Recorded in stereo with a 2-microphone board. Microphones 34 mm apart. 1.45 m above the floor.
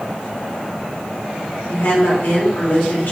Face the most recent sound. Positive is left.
turn(degrees=70)  # may be behind; listen again after turning